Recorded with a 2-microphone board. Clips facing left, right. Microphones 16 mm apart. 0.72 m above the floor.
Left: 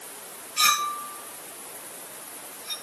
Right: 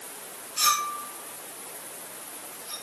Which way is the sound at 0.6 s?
80° left.